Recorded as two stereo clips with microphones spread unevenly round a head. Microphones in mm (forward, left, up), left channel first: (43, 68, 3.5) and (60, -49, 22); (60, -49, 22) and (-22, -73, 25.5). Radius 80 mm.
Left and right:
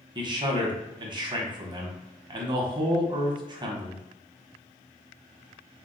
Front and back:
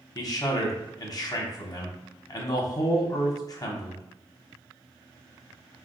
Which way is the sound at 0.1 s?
30° right.